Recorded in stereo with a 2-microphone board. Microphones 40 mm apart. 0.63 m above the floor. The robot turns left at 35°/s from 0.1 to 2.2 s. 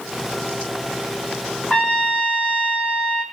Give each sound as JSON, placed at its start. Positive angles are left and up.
{"t": 1.7, "sound": "a trumpet", "side_deg": 25, "distance_m": 1.1}